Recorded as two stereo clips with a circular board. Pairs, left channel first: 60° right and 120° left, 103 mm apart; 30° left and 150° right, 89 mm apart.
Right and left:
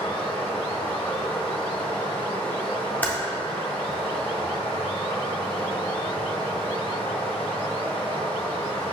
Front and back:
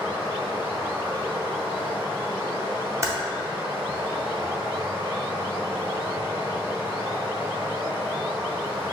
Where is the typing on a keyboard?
120° right, 0.6 m.